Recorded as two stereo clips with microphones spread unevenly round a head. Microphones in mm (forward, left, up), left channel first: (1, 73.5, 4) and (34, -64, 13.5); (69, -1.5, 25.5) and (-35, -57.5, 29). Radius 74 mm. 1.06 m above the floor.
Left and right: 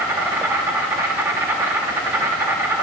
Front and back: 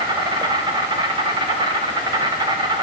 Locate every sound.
0.0 s an insect: 145° right, 1.1 m